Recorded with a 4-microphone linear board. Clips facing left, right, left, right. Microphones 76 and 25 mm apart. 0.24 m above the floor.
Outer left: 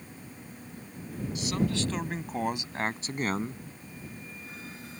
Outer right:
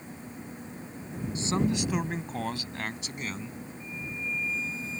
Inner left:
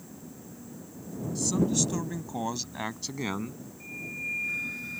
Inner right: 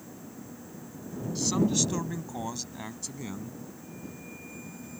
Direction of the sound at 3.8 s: 60° left (ahead or behind).